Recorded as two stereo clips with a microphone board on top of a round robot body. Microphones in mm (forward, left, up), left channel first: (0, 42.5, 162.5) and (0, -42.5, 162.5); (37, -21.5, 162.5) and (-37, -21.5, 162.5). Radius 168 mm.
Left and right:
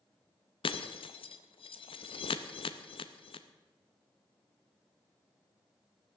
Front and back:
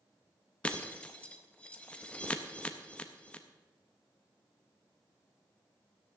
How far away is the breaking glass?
About 0.6 m.